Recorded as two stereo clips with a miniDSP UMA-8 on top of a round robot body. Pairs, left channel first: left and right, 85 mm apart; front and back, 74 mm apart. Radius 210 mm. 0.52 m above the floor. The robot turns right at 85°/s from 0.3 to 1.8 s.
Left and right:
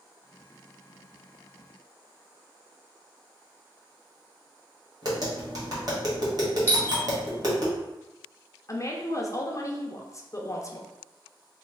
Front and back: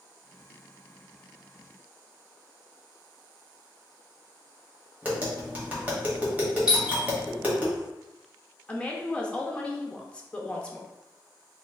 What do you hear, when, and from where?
5.0 s tapping: 115° right, 1.9 m
6.7 s a doorbell: 115° left, 1.6 m
8.7 s a woman speaking: 65° left, 0.8 m